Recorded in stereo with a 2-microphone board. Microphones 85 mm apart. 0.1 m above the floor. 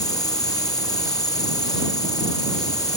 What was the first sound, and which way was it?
An insect, 45° left (ahead or behind).